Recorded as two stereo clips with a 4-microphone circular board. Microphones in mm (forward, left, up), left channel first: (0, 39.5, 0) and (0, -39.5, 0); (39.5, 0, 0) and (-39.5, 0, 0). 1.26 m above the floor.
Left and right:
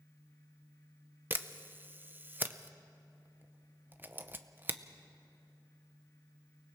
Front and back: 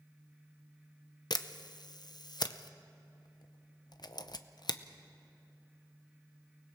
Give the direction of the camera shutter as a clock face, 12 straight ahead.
1 o'clock.